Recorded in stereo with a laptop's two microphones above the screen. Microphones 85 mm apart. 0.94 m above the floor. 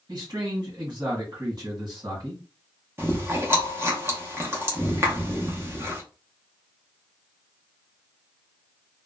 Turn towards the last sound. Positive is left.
turn(degrees=-30)  # may be behind; listen again after turning